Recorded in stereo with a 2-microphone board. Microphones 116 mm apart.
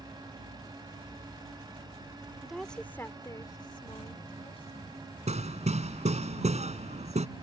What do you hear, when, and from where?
2.4 s a woman speaking: 5° right (ahead or behind); by 5.0 s 60° left (ahead or behind)
5.3 s hammering: 75° right (ahead or behind)